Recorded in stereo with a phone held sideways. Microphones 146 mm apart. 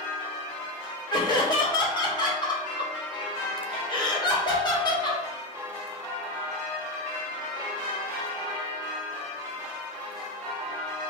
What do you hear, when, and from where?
1.1 s laughter: 30° left (ahead or behind), 1.3 m